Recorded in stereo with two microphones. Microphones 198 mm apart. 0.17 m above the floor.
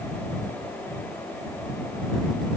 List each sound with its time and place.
Only background noise.